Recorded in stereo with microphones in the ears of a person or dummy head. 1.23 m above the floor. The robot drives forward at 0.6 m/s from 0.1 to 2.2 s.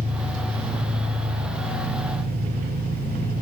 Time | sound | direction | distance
0.0 | an engine running | 50° right (ahead or behind) | 6 m